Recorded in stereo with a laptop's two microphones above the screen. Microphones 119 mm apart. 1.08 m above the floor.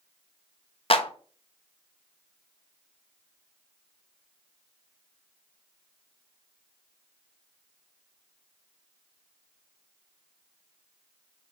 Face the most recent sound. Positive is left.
turn(degrees=50)  # may be behind; listen again after turning